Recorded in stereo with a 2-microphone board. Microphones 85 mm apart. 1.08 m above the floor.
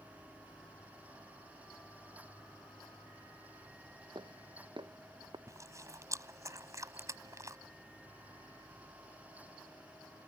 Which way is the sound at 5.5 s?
40° right (ahead or behind).